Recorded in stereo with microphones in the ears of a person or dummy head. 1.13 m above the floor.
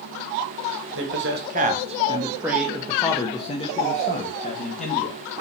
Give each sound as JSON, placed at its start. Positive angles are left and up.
{"t": 0.9, "sound": "a man speaking", "side_deg": -55, "distance_m": 1.2}